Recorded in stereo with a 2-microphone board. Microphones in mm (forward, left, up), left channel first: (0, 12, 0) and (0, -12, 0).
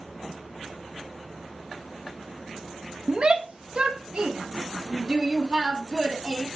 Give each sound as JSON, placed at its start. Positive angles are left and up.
{"t": 3.1, "sound": "a shout", "side_deg": -40, "distance_m": 1.8}